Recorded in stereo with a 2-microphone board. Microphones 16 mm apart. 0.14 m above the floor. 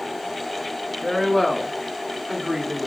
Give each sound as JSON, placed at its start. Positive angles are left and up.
{"t": 1.0, "sound": "a woman speaking", "side_deg": 35, "distance_m": 1.6}